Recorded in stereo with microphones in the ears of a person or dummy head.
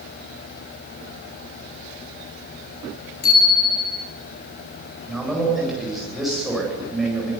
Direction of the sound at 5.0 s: Centre (ahead or behind).